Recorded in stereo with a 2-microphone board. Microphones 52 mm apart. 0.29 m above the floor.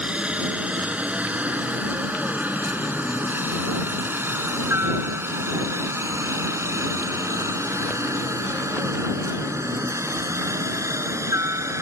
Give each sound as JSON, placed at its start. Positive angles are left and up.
{"t": 0.0, "sound": "a helicopter", "side_deg": -20}